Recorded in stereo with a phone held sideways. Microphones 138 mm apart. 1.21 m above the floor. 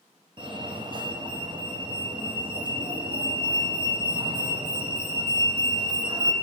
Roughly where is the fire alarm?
Right.